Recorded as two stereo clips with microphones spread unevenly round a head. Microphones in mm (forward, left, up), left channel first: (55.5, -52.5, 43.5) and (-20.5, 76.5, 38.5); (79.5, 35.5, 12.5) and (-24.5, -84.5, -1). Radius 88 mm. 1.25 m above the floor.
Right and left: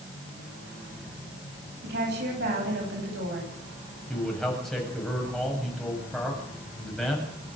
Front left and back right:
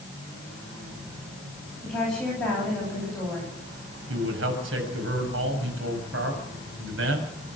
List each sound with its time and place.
1.8 s a woman speaking: 135° left, 10 m
4.1 s a man speaking: 150° right, 7.5 m